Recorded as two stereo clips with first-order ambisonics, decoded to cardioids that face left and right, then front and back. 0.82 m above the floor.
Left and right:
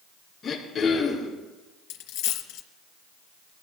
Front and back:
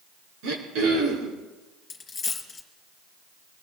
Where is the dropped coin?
70° left, 3 m.